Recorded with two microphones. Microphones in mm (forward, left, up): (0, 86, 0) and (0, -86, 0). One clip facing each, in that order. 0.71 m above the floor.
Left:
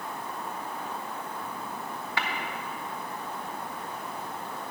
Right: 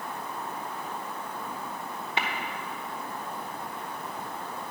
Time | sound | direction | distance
2.2 | tapping | 20° right (ahead or behind) | 0.9 m